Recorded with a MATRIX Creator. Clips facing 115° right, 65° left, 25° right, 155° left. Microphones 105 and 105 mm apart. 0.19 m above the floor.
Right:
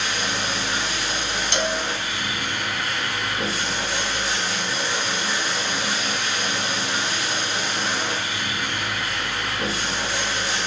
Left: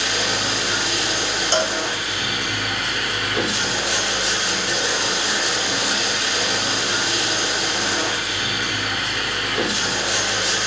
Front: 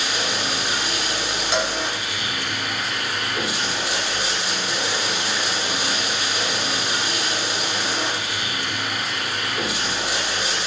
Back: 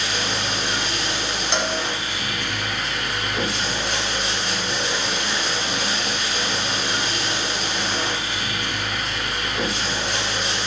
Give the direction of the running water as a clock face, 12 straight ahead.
10 o'clock.